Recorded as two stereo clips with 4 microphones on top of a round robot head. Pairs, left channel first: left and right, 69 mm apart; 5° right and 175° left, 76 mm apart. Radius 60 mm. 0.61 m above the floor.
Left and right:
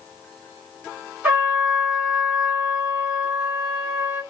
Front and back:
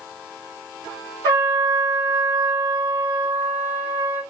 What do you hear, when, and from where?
1.2 s a trumpet: 140° right, 2.5 m